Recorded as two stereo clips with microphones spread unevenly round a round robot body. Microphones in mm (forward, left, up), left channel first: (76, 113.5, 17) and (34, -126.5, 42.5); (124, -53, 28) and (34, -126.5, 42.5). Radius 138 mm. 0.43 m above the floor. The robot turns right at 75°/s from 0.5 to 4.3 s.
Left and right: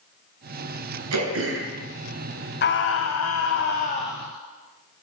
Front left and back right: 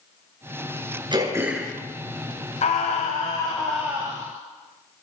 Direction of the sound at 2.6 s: 45° left.